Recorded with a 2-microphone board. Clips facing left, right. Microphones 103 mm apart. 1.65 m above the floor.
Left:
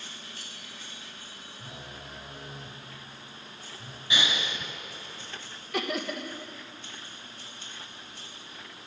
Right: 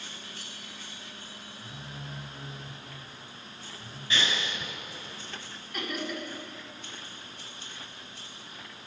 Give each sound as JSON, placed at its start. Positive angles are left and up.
{"t": 1.6, "sound": "a phone buzzing", "side_deg": 55, "distance_m": 2.0}
{"t": 4.1, "sound": "breathing", "side_deg": 15, "distance_m": 1.8}
{"t": 5.7, "sound": "laughter", "side_deg": 75, "distance_m": 2.0}